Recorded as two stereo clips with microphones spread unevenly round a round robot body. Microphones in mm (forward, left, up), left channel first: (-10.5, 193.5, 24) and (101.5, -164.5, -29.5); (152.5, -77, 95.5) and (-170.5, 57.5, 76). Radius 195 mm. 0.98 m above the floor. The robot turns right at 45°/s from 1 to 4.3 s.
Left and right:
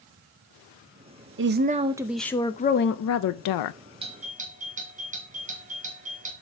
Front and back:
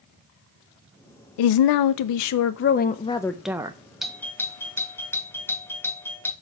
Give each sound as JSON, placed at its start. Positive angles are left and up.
{"t": 1.4, "sound": "a woman speaking", "azimuth_deg": -25, "distance_m": 0.6}
{"t": 4.0, "sound": "a doorbell", "azimuth_deg": -120, "distance_m": 1.3}